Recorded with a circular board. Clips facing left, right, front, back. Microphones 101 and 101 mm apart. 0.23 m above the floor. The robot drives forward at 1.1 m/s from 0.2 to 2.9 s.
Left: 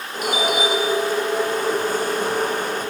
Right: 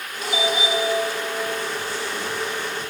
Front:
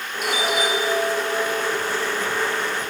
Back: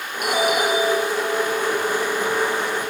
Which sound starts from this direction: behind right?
A doorbell, at 0.2 s.